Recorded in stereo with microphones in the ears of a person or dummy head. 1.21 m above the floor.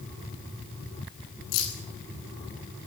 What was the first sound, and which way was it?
Keys jangling, 75° left (ahead or behind).